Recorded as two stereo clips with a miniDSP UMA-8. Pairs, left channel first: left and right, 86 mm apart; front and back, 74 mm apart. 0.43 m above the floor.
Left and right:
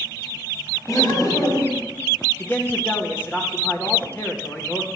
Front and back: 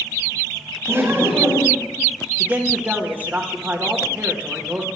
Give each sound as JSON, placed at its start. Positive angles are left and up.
{"t": 0.9, "sound": "laughter", "azimuth_deg": 130, "distance_m": 3.0}
{"t": 2.4, "sound": "a man speaking", "azimuth_deg": 135, "distance_m": 1.1}